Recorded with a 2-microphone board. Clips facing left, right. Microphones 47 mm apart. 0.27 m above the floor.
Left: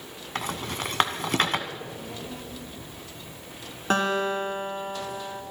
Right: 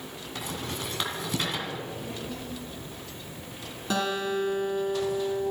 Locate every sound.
0.3 s a rattle: 55° left (ahead or behind), 1.4 m
1.7 s a child speaking: 15° left (ahead or behind), 8 m
3.9 s a guitar: 45° left (ahead or behind), 2.5 m